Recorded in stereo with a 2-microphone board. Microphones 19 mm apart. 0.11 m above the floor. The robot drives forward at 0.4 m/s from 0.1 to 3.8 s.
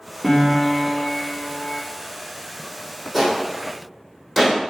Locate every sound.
0.2 s a piano: 25° left (ahead or behind), 2.0 m; by 1.8 s 35° left (ahead or behind), 1.6 m
3.1 s a gunshot: centre (ahead or behind), 3 m